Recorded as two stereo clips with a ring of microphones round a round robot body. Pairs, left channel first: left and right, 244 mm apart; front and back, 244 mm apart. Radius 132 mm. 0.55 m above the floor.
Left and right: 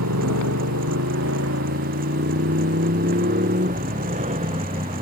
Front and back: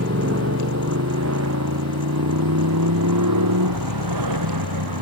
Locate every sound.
0.0 s a motorcycle: 130° right; by 5.0 s 160° right